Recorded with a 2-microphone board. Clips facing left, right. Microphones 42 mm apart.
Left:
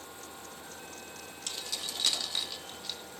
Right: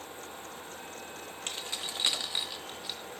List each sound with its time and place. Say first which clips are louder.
1.5 s keys jangling: right 1 dB; 30° right (ahead or behind), 2 m; by 3.0 s 10° right (ahead or behind), 3 m